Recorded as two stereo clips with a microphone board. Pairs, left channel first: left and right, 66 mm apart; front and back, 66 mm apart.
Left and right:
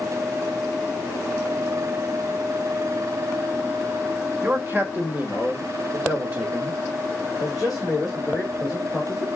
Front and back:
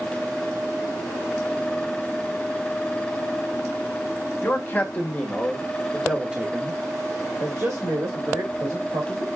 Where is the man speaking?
45° right, 1.5 m; by 9.3 s 175° left, 2 m.